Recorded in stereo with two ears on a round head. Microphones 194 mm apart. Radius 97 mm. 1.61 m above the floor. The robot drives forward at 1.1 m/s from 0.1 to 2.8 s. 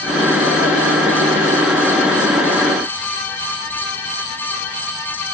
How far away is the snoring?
I don't hear snoring.